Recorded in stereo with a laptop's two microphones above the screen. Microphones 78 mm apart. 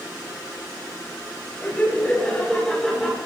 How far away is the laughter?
About 5.5 m.